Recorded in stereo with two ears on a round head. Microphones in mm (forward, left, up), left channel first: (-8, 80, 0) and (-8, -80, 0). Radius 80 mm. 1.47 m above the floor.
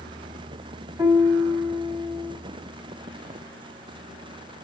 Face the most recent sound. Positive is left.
turn(degrees=-20)  # may be behind; listen again after turning